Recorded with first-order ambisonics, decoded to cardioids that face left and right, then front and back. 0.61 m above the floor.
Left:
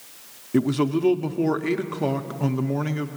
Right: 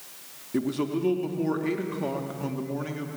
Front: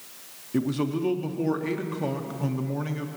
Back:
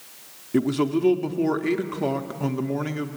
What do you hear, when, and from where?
0.5 s a man speaking: 130° left, 0.6 m